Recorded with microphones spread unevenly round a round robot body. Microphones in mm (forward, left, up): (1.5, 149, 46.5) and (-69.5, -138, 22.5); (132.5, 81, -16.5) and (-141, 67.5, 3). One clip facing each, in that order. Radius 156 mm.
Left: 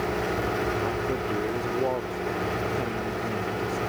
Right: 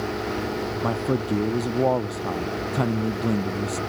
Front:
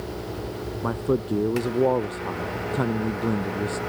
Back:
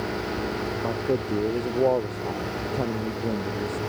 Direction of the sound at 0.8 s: 70° right.